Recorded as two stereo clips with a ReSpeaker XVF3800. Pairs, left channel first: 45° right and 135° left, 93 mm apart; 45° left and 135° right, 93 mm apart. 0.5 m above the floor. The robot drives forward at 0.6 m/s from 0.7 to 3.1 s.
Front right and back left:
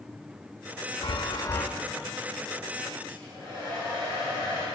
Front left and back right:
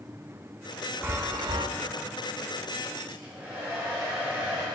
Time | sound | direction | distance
1.0 | a chime | 70° right | 0.5 m
3.1 | a hair dryer | 160° left | 3 m